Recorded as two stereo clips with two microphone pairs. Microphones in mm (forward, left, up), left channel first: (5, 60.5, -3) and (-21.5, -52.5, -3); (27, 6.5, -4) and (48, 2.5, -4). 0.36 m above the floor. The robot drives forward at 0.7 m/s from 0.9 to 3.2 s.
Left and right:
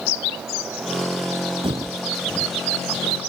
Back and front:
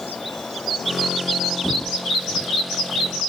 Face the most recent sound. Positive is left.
turn(degrees=140)